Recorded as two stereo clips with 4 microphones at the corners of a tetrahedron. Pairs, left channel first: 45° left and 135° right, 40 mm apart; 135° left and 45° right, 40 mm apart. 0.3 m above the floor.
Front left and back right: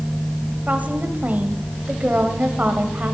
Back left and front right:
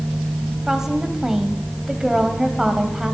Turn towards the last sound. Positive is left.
turn(degrees=-120)